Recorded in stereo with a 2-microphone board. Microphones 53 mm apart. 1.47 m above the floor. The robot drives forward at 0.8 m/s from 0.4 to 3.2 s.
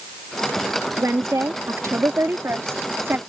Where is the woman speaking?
80° right; by 3.2 s 45° right (ahead or behind).